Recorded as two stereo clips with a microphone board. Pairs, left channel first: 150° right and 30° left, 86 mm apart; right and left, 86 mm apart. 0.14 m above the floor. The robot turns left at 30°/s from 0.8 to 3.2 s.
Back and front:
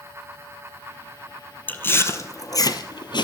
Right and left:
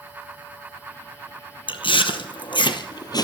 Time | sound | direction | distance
1.7 | chewing | 80° right | 0.9 m